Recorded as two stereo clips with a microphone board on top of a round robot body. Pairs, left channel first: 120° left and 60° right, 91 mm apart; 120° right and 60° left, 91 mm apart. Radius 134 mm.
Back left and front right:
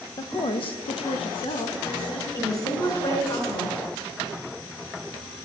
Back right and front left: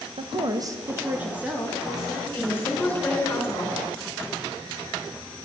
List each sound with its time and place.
0.2 s a woman speaking: 75° left, 1.1 m; by 2.2 s 145° left, 3 m
2.3 s a woman speaking: 170° left, 4.5 m